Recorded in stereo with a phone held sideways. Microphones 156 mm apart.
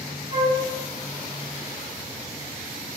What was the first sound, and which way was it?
A flute, 65° left (ahead or behind).